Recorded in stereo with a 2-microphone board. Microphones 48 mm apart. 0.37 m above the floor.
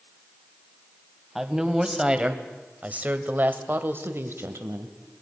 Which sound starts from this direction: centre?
A woman speaking, at 1.4 s.